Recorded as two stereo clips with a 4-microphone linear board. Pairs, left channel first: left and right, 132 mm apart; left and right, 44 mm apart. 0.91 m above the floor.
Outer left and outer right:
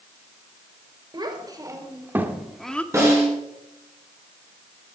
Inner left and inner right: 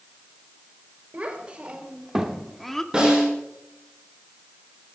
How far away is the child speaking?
About 3 m.